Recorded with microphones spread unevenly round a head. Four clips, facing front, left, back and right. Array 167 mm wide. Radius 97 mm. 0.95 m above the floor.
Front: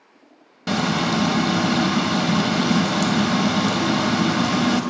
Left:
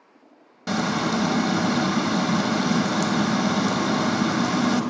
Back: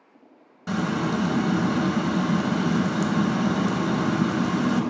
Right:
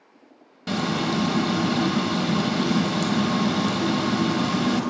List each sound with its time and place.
0.7 s frying: 25° left, 0.7 m